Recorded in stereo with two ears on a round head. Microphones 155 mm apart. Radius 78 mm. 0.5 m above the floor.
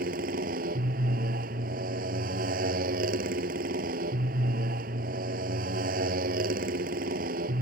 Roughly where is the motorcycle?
Right.